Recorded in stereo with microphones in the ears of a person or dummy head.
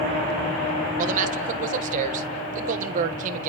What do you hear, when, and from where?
1.0 s a man speaking: 45° right (ahead or behind), 2 m